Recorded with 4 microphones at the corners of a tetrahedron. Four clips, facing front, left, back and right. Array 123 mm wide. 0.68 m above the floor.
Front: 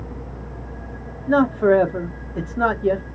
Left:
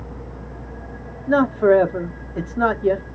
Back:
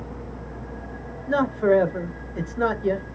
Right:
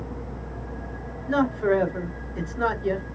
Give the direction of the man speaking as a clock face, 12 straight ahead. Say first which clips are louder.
Left 7 dB, front 4 dB; 10 o'clock.